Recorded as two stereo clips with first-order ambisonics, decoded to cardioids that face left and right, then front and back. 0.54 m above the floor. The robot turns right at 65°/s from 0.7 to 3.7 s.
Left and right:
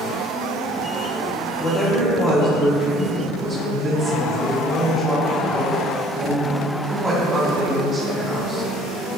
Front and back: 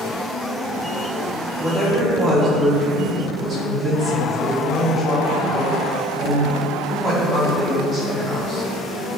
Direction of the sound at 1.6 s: 80° left.